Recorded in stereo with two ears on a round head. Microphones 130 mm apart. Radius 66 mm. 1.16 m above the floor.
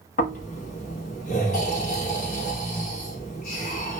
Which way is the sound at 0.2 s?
60° left (ahead or behind).